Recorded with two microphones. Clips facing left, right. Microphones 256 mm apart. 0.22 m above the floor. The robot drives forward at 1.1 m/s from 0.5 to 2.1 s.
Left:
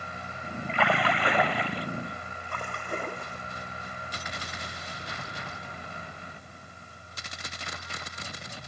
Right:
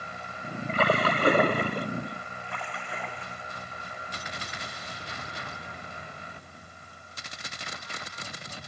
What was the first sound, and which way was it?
A splash, 45° right (ahead or behind).